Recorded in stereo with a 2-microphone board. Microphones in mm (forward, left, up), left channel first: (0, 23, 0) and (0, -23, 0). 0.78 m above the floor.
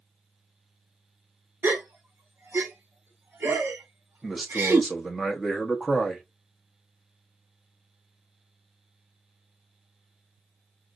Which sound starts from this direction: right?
A gasp, at 1.6 s.